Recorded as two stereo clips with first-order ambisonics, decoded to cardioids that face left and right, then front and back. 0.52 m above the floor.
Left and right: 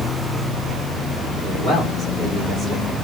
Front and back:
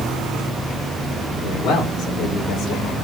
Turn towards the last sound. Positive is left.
turn(degrees=0)